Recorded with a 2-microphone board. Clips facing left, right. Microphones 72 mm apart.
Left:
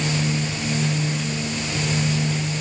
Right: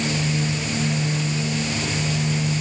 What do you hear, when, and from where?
Only background noise.